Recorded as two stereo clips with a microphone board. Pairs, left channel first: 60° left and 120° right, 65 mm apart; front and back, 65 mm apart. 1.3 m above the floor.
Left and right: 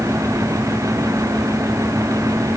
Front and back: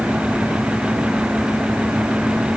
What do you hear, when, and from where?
Only background noise.